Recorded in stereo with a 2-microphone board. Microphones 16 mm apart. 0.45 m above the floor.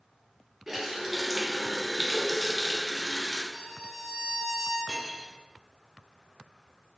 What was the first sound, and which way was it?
A running tap, 15° right (ahead or behind).